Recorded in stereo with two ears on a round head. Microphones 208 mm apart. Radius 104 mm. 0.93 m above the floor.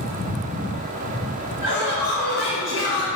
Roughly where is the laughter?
Centre.